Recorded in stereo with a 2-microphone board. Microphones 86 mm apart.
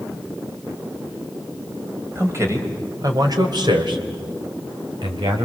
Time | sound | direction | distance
2.1 | a man speaking | 30° right (ahead or behind) | 4 m